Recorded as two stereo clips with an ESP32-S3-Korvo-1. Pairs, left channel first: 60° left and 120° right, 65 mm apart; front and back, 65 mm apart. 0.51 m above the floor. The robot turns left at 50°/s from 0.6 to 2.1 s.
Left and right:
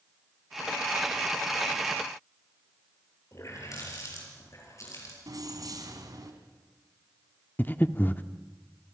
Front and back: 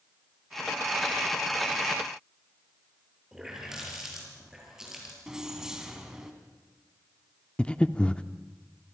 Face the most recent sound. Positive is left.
turn(degrees=55)